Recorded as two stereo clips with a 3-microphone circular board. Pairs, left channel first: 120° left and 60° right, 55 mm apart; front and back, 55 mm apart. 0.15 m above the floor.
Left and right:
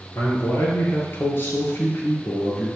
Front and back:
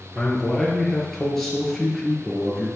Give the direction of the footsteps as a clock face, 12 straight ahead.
No footsteps in this recording.